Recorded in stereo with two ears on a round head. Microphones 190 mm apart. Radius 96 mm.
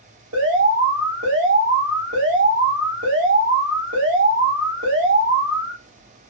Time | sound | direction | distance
0.3 | an alarm | 75° right (ahead or behind) | 1.9 m